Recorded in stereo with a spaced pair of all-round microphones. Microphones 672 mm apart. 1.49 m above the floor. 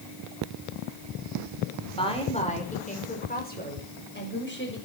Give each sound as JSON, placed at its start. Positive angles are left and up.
{"t": 2.0, "sound": "a woman speaking", "side_deg": 10, "distance_m": 5.5}